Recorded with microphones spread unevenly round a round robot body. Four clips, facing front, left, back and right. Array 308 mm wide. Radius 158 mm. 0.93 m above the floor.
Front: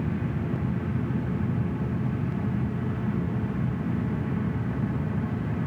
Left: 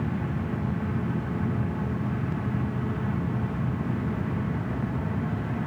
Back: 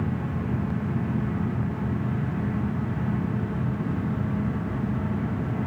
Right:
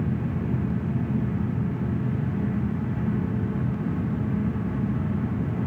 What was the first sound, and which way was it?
Only background noise.